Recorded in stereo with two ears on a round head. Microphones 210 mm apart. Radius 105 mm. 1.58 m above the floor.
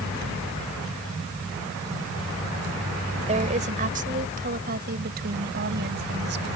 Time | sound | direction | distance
3.3 | a woman speaking | 30° right (ahead or behind) | ?